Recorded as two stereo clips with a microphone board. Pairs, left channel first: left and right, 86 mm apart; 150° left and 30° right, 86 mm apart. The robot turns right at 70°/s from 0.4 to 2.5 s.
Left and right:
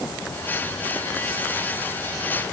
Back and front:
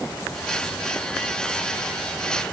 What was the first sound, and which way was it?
Only background noise.